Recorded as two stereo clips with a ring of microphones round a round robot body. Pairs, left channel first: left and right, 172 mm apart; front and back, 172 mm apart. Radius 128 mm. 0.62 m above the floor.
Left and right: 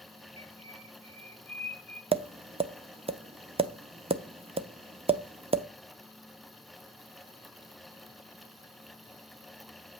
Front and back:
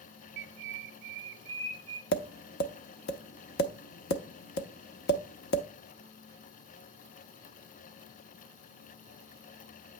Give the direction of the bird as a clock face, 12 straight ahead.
7 o'clock.